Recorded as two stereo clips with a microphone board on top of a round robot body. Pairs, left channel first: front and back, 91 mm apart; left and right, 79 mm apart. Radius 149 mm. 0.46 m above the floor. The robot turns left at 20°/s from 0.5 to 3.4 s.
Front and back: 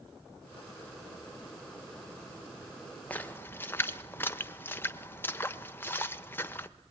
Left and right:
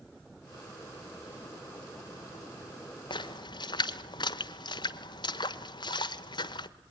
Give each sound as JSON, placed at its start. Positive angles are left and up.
{"t": 3.1, "sound": "a splash", "azimuth_deg": 75, "distance_m": 1.1}